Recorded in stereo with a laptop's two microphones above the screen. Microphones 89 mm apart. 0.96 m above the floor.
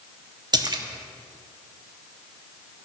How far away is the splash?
About 0.7 m.